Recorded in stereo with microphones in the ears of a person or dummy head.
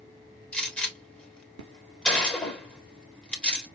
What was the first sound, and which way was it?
A gunshot, 10° left (ahead or behind).